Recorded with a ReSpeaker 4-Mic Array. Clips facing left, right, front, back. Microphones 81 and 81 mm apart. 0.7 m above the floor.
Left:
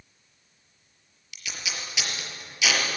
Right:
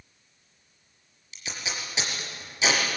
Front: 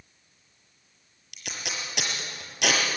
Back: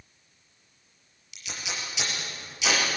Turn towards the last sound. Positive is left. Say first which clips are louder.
# right 1 dB, front 1 dB
turn(degrees=-30)